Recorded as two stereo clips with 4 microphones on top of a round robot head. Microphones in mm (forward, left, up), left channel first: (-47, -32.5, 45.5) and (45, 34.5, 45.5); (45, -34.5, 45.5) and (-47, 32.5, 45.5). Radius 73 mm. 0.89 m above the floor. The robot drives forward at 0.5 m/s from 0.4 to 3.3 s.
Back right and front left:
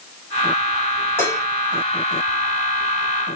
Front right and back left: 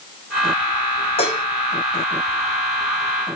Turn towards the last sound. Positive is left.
turn(degrees=-110)